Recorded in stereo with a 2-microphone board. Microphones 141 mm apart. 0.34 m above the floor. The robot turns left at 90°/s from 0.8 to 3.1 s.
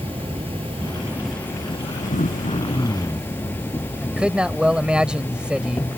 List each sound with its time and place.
0.0 s an insect: 135° right; by 6.0 s 20° left
2.1 s throat clearing: 90° left; by 3.3 s straight ahead
4.0 s a man speaking: 5° right (ahead or behind)